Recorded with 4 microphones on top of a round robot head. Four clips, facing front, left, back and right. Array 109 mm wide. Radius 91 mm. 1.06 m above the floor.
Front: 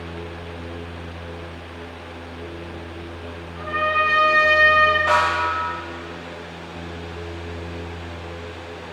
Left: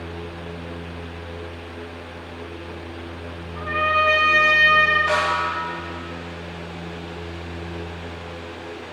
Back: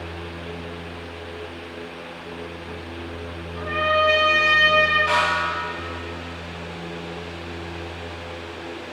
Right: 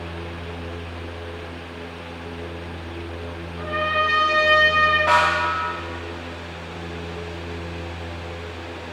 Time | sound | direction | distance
3.5 | a trumpet | 130° left | 2.0 m
5.1 | a snare drum | 75° right | 3 m